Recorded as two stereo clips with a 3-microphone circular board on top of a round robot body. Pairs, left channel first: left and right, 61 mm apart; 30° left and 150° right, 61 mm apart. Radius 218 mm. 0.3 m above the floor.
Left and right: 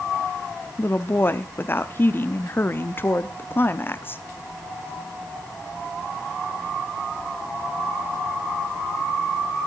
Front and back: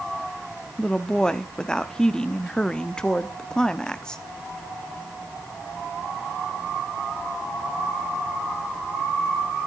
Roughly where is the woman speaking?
Left.